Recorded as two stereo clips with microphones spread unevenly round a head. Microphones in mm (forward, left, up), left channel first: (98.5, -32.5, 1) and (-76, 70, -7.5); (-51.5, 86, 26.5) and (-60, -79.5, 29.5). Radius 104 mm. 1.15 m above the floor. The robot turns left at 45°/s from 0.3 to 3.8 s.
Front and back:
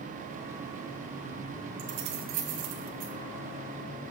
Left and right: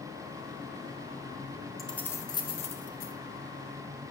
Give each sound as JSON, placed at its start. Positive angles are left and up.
{"t": 1.8, "sound": "keys jangling", "azimuth_deg": 180, "distance_m": 1.3}